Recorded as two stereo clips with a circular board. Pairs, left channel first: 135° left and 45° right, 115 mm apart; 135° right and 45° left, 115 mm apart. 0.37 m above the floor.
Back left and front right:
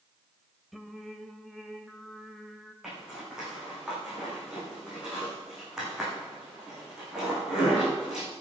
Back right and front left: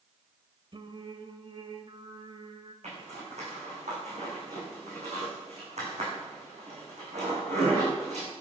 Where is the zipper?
40° left, 8.5 m.